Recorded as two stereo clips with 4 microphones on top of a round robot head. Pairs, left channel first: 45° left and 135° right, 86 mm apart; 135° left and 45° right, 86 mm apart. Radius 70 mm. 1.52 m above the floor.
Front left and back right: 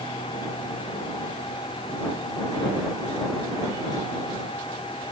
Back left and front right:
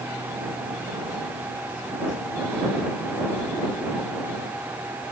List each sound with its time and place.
Only background noise.